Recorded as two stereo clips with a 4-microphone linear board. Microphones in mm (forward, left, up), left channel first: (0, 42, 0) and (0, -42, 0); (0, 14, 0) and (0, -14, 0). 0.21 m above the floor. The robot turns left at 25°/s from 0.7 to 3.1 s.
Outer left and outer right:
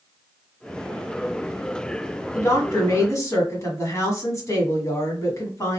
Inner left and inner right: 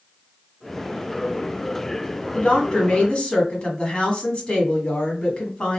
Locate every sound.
2.4 s a woman speaking: 40° left (ahead or behind), 1.2 m